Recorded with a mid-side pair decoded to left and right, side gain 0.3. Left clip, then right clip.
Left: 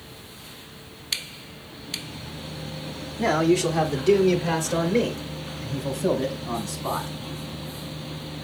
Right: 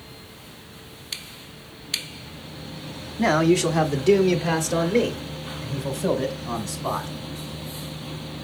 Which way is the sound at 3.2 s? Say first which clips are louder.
Right 2 dB; 50° right.